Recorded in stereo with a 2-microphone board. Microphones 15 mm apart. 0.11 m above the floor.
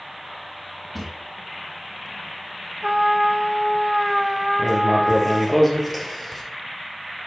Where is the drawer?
Centre (ahead or behind), 3 m.